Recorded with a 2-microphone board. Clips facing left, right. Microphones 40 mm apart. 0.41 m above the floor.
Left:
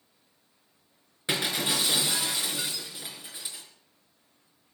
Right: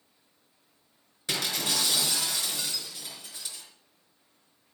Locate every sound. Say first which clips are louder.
1.3 s breaking glass: left 2 dB; 25° left (ahead or behind), 4 m